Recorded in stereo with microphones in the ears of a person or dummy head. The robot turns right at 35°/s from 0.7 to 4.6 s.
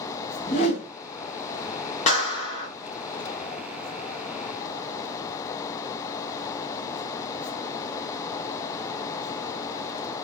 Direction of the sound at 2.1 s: 40° left (ahead or behind).